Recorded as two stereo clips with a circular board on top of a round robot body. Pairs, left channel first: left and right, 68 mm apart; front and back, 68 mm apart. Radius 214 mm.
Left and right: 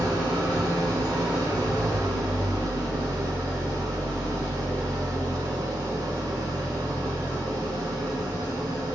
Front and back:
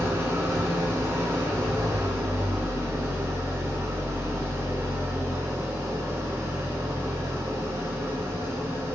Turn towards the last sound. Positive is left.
turn(degrees=-125)